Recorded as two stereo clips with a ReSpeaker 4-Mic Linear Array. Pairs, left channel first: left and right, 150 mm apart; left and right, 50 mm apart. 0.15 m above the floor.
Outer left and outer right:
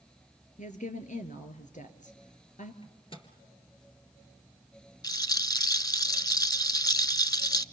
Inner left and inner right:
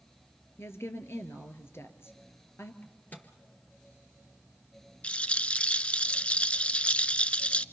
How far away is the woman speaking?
About 2.5 m.